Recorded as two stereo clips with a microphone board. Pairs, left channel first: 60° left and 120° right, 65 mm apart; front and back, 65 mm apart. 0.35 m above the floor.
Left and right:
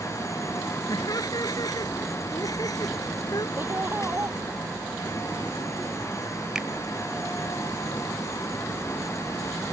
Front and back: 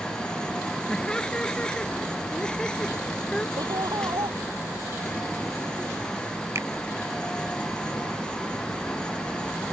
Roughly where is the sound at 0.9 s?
Left.